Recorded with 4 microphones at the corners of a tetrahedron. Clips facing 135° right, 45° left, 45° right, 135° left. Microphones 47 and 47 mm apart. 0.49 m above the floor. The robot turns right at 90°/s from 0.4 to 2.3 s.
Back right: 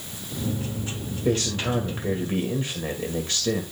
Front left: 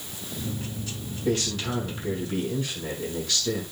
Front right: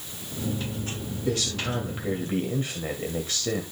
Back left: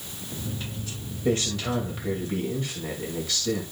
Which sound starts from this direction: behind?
A man speaking, at 1.2 s.